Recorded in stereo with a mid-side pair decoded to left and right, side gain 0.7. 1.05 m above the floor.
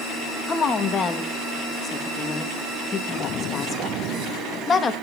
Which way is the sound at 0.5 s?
30° left.